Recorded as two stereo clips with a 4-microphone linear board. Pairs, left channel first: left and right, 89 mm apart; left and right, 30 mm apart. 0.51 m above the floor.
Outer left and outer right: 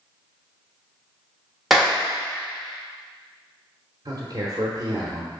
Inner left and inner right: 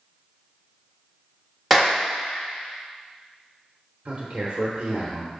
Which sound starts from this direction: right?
A man speaking, at 4.0 s.